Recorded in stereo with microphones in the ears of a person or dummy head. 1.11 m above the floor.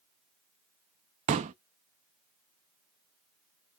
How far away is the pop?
About 0.5 m.